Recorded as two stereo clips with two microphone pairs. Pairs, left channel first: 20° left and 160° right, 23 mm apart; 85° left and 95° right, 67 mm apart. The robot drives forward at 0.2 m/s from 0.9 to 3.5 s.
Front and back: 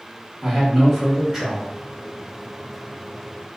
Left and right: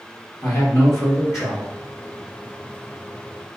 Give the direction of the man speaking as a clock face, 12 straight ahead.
8 o'clock.